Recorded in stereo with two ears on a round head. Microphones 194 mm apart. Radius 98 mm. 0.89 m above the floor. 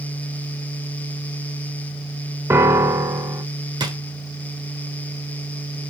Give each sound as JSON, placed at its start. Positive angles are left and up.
{"t": 2.5, "sound": "a piano", "side_deg": -10, "distance_m": 0.9}
{"t": 3.8, "sound": "a drawer", "side_deg": -20, "distance_m": 1.6}